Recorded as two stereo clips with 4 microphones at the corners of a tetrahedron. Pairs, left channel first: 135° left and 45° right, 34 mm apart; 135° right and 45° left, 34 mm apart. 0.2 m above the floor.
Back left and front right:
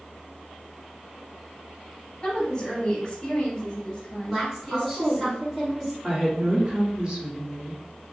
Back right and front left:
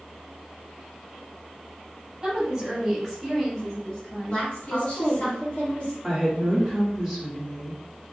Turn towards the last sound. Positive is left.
turn(degrees=-85)